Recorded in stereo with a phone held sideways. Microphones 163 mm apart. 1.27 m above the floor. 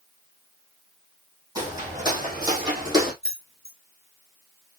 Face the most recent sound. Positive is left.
turn(degrees=-70)  # may be behind; listen again after turning